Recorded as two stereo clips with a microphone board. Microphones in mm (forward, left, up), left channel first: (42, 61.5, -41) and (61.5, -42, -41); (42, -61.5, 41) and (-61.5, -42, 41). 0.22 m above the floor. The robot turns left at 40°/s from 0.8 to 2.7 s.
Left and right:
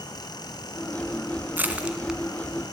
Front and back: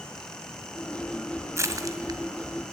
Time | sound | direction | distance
1.6 | crushing | 140° right | 1.8 m